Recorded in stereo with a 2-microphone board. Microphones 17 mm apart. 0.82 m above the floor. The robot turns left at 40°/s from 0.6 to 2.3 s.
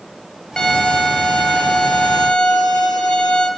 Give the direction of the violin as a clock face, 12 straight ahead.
7 o'clock.